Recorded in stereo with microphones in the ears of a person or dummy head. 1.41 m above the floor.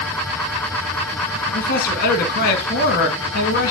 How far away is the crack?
No crack in this recording.